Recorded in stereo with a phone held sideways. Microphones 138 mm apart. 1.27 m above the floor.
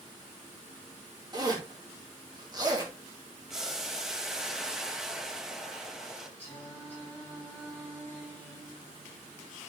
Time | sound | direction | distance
1.3 | a zipper | 30° right (ahead or behind) | 2.5 m
3.5 | boiling | 5° right (ahead or behind) | 1.3 m
6.4 | singing | 10° left (ahead or behind) | 7.5 m